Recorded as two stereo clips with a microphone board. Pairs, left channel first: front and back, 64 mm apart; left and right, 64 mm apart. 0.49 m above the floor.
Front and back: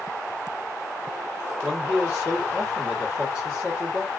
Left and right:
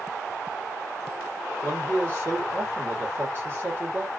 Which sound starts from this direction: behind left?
A man speaking, at 1.6 s.